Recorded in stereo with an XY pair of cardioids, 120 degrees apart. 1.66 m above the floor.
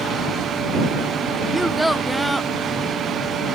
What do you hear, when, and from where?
1.5 s a child speaking: straight ahead